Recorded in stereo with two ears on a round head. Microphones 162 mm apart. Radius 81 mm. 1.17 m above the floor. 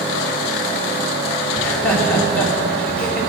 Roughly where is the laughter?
Centre.